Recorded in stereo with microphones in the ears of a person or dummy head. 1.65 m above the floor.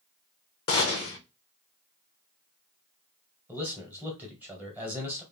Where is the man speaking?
10° right (ahead or behind), 1.6 m.